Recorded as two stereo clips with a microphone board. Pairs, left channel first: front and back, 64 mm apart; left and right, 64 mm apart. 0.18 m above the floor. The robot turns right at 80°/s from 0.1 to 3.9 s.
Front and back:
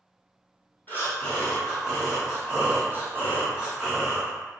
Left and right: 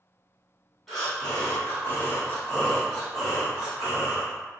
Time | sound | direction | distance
0.9 | breathing | straight ahead | 1.2 m